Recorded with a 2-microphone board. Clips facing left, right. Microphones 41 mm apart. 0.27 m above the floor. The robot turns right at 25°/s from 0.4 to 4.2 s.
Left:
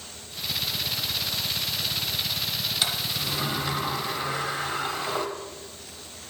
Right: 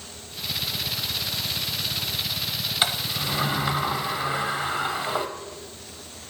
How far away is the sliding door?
About 0.9 m.